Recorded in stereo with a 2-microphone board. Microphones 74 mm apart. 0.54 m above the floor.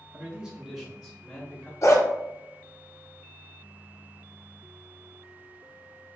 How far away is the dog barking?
About 0.8 m.